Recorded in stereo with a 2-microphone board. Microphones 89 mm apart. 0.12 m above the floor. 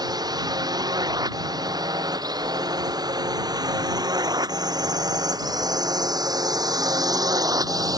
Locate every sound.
0.0 s a drone: 50° right (ahead or behind); by 8.0 s 45° right (ahead or behind)